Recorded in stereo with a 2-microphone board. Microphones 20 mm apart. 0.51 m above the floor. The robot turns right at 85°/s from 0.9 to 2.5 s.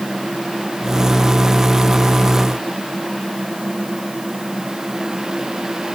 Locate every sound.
Only background noise.